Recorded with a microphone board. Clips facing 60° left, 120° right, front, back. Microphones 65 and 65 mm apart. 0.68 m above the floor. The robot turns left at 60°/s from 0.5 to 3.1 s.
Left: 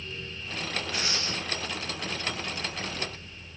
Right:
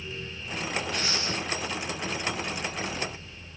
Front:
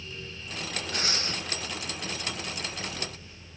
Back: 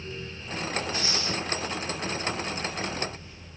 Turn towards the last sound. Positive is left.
turn(degrees=-160)